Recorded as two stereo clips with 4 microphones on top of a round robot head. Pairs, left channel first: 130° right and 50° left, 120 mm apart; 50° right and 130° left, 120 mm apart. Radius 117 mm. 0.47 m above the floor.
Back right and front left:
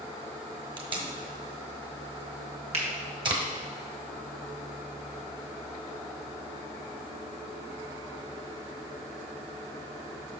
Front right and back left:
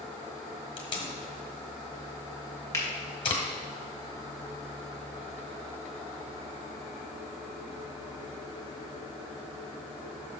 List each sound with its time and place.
0.8 s tape being pulled: straight ahead, 1.4 m
2.7 s a finger snap: 20° left, 2 m